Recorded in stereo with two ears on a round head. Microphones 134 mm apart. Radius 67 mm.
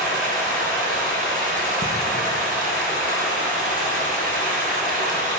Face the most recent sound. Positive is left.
turn(degrees=-60)  # may be behind; listen again after turning